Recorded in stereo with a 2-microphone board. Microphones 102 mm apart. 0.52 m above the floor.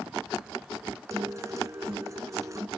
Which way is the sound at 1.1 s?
30° right (ahead or behind).